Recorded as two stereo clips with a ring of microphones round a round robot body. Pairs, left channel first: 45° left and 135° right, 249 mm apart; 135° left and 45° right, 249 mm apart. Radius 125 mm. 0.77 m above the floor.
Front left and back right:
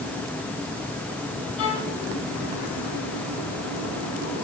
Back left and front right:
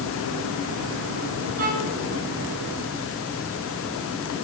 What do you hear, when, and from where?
1.6 s a violin: 10° left, 7.5 m